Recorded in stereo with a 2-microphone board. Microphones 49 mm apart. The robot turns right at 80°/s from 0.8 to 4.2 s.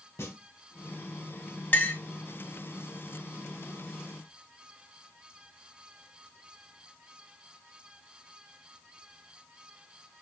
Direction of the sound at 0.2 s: 60° left (ahead or behind).